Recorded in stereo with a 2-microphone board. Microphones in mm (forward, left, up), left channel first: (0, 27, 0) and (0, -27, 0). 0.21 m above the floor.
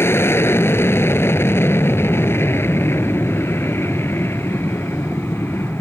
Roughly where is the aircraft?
Left.